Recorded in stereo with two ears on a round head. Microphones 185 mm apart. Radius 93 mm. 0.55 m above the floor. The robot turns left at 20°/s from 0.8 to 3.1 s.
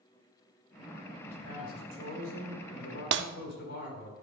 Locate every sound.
1.2 s a man speaking: 100° left, 4 m; by 4.1 s 65° left, 4 m
3.1 s breaking glass: 55° right (ahead or behind), 0.6 m